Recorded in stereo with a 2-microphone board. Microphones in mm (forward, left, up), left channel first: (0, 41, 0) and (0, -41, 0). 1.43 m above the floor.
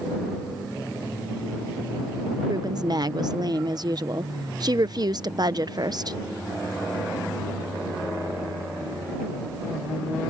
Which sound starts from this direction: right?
A woman speaking, at 2.5 s.